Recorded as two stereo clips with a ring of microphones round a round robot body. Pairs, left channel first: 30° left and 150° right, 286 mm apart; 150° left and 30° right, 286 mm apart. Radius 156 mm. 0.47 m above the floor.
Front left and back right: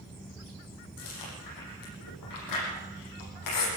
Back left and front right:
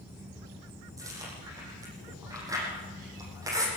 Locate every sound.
1.0 s chewing: 50° left, 9.5 m